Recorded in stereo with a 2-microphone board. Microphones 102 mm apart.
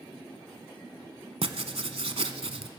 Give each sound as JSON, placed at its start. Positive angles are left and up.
{"t": 1.4, "sound": "writing", "side_deg": -75, "distance_m": 0.8}